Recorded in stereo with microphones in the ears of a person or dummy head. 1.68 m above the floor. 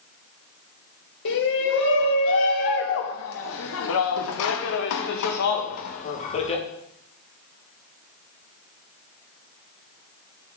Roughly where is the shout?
Left.